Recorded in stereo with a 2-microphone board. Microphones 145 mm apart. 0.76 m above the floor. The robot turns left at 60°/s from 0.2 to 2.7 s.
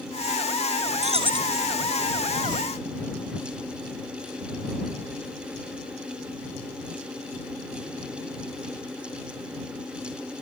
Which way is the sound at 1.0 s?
125° right.